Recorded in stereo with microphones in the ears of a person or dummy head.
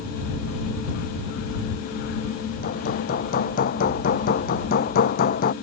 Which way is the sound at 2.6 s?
45° left (ahead or behind).